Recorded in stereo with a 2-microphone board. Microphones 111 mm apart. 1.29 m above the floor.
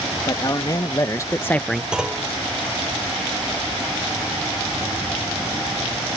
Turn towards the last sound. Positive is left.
turn(degrees=-5)  # may be behind; listen again after turning